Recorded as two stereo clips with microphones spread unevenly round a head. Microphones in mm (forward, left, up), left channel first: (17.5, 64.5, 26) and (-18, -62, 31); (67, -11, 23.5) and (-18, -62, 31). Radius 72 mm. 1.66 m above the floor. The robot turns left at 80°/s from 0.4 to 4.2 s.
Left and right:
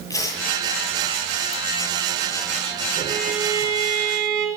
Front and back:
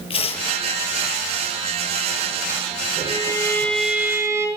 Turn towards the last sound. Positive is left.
turn(degrees=-90)